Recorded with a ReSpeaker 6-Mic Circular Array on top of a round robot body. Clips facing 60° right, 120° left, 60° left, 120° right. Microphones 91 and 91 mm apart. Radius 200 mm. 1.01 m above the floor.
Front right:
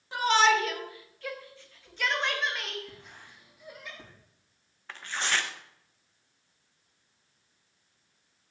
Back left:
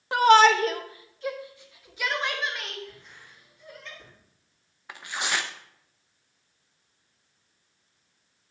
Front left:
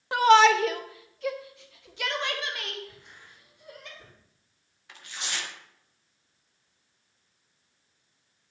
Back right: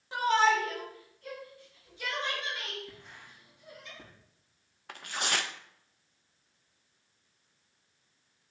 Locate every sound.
0.1 s a shout: 90° left, 1.2 m; by 3.9 s 25° left, 3.5 m
2.9 s writing: 95° right, 5.5 m
4.9 s tearing paper: 160° right, 0.6 m